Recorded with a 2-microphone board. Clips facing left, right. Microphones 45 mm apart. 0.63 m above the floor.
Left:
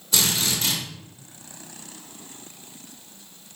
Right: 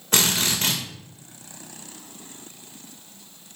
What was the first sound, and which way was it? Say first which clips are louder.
A drill: right 2 dB; 55° right (ahead or behind).